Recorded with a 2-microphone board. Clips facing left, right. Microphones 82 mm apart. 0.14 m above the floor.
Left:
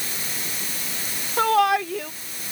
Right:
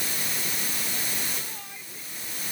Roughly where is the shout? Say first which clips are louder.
Left 24 dB; left.